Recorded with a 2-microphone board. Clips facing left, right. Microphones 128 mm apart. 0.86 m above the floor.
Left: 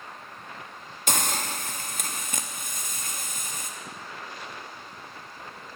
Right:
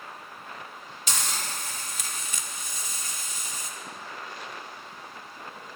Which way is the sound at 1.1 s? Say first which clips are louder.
Left 5 dB; 50° left (ahead or behind).